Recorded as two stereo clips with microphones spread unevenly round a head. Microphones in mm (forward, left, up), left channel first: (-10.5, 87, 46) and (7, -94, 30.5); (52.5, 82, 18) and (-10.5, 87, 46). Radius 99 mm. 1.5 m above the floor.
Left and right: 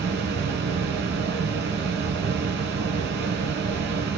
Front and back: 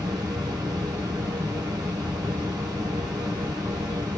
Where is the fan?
110° right, 2.0 m.